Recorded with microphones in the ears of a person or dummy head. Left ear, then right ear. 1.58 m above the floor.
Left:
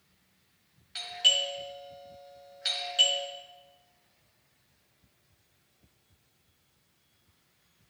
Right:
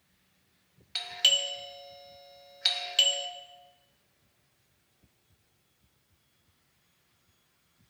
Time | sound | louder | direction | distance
0.9 | a doorbell | even | 30° right (ahead or behind) | 0.9 m